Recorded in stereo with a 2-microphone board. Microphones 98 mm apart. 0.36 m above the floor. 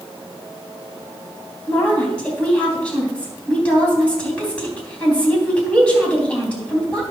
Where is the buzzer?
No buzzer in this recording.